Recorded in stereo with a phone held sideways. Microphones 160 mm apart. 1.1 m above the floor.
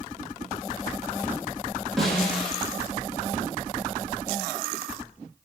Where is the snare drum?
Centre (ahead or behind), 4.5 m.